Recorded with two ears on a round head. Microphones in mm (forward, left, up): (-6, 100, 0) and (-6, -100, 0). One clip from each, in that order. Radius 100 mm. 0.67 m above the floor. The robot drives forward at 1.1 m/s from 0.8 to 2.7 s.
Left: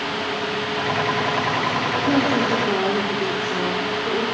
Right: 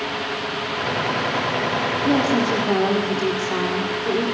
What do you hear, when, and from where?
2.0 s a woman speaking: 60° right (ahead or behind), 2 m